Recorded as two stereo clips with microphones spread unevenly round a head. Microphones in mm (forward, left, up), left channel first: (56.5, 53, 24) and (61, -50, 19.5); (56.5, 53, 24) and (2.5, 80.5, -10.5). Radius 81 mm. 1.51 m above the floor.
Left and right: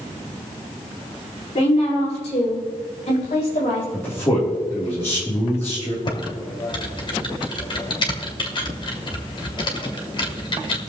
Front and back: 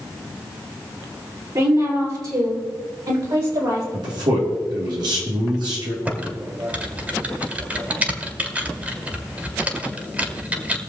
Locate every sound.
1.6 s a woman speaking: 140° left, 5 m
3.9 s a man speaking: 165° left, 3 m
6.0 s typing on a keyboard: 70° left, 2 m